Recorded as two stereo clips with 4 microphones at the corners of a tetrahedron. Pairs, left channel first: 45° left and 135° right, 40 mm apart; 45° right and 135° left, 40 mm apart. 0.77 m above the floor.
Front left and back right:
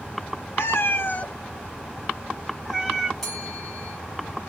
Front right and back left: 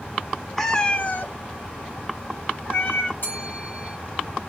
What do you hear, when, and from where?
0.6 s a cat meowing: 40° left, 0.9 m; by 3.1 s 60° right, 2 m
3.2 s a bell: 40° right, 1.8 m